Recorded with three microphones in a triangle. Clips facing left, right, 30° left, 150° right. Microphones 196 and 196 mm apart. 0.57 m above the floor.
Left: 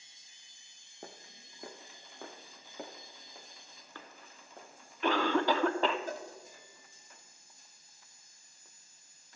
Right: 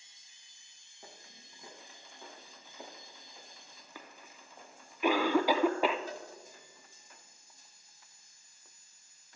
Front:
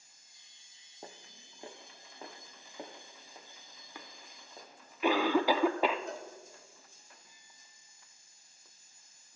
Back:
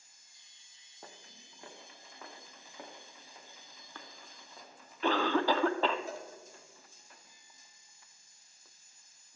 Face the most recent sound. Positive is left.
turn(degrees=125)